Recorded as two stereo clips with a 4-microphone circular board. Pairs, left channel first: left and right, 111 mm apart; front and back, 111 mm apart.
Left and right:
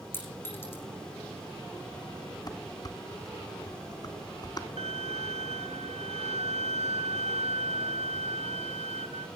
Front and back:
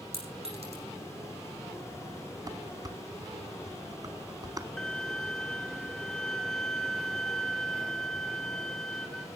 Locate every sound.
0.1 s a clink: 160° left, 8 m
2.5 s dishes clattering: 135° left, 1.4 m
4.8 s a violin: 85° right, 1.3 m